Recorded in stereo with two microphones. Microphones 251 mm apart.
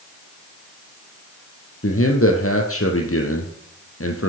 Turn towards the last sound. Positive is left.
turn(degrees=60)  # may be behind; listen again after turning